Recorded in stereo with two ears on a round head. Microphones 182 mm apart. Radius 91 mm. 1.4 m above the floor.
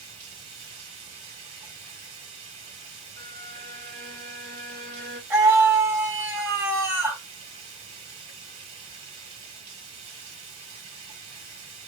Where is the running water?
30° right (ahead or behind), 4 m.